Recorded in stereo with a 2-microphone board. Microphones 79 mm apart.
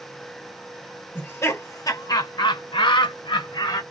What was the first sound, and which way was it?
Laughter, 30° left (ahead or behind).